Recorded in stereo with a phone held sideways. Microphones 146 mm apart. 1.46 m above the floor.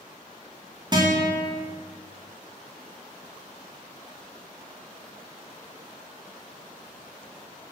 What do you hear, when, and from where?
0.9 s a guitar: 30° right (ahead or behind), 1.8 m